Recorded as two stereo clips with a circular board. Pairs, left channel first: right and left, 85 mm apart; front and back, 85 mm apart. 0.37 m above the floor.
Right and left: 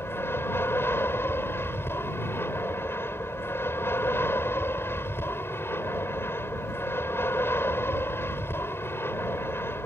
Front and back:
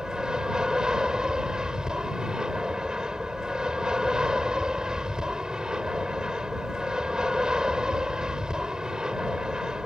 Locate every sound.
0.0 s an aircraft: 110° right